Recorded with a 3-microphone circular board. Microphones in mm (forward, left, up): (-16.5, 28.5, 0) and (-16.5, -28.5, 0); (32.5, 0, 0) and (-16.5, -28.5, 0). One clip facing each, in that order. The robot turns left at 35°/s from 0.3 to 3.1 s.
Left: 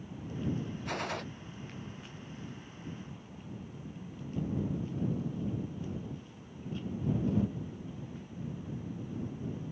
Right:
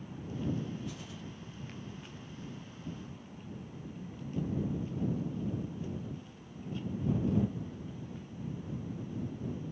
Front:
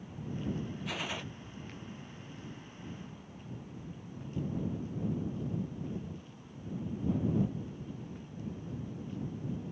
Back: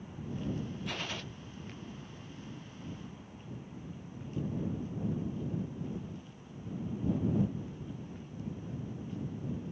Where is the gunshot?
115° left; by 1.3 s 100° left.